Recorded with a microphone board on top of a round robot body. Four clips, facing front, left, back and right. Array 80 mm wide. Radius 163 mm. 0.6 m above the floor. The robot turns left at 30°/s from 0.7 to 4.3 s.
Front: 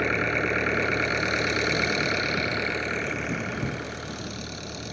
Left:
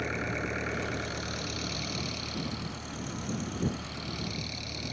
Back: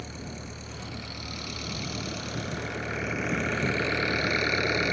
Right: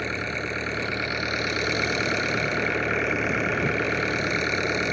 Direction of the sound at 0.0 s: 10° right.